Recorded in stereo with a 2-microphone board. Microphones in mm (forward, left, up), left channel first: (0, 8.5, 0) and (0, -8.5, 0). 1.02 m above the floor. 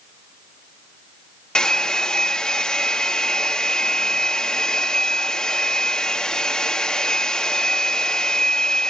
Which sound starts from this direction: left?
A hair dryer, at 1.6 s.